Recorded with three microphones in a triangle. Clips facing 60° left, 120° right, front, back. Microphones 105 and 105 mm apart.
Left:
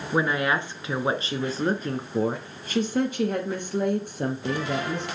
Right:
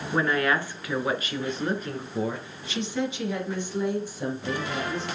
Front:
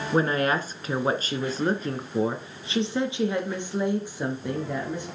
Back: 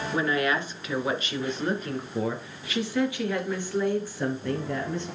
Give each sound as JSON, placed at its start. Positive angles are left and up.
{"t": 0.1, "sound": "a woman speaking", "azimuth_deg": -10, "distance_m": 1.8}